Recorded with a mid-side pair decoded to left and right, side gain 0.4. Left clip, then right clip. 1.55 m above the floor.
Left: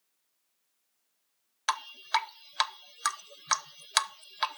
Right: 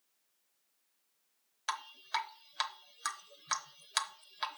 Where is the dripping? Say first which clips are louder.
Left 8 dB; 55° left, 0.7 m.